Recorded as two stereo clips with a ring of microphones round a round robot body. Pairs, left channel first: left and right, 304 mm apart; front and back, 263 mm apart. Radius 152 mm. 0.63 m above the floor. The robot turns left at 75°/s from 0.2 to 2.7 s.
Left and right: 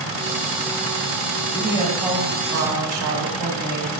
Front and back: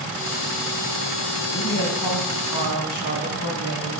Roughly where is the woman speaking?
Ahead left.